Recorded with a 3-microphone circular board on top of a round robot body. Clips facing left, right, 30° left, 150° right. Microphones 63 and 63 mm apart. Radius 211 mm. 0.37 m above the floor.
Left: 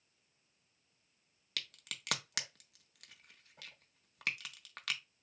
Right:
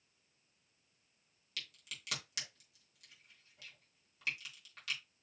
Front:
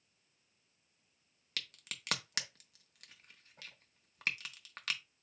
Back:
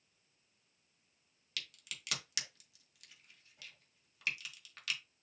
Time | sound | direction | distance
1.6 | a crack | 70° left | 1.0 m